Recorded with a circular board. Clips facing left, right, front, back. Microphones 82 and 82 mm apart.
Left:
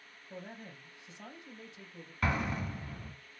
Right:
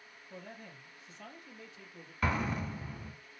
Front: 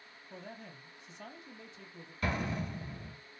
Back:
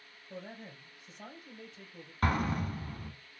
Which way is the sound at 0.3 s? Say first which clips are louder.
Left 2 dB, back 2 dB; 150° left.